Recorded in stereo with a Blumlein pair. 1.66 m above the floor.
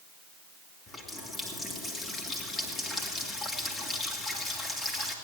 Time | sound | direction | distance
0.9 | a running tap | 15° left | 2.5 m